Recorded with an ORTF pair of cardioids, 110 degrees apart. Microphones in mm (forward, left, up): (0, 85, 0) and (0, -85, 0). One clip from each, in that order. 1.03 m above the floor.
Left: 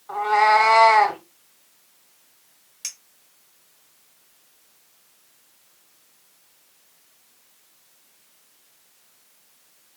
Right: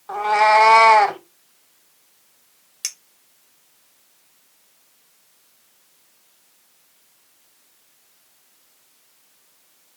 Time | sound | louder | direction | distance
0.1 | a cat meowing | right 2 dB | 40° right | 0.8 m
2.8 | a clink | right 4 dB | 40° right | 0.7 m